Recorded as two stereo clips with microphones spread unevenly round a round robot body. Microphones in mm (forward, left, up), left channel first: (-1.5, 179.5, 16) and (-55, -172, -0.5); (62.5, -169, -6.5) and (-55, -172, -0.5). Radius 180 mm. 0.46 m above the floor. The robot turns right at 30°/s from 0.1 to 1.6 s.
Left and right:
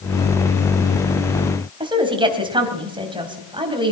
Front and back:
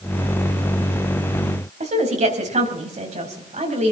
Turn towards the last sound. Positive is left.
turn(degrees=-175)